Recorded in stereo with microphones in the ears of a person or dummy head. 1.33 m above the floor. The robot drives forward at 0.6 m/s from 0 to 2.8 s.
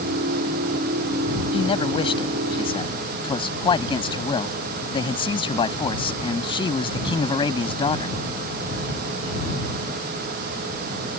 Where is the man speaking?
30° left (ahead or behind); by 8.2 s 25° left (ahead or behind).